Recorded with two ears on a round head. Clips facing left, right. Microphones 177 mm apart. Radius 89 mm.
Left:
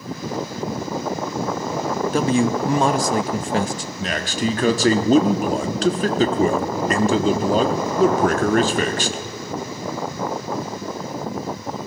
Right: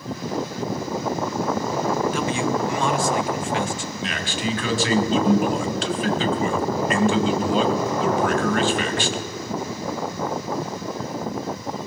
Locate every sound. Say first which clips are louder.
2.1 s a man speaking: left 4 dB; 35° left (ahead or behind), 0.7 m
4.0 s a man speaking: left 6 dB; 35° left (ahead or behind), 1.3 m